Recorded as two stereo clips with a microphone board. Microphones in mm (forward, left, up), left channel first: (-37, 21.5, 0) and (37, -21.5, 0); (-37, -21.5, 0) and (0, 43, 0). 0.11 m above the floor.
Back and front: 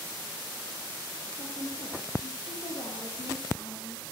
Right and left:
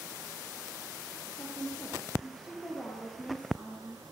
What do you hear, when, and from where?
1.4 s a woman speaking: 170° left, 10 m